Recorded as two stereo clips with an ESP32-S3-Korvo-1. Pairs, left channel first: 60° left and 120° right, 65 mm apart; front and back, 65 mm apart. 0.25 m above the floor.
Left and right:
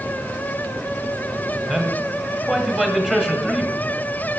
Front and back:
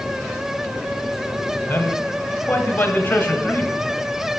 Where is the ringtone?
I don't hear a ringtone.